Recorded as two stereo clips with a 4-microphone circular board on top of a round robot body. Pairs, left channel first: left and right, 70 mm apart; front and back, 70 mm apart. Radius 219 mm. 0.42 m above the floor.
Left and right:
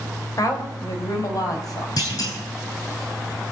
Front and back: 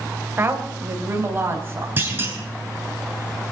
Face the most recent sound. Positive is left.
turn(degrees=115)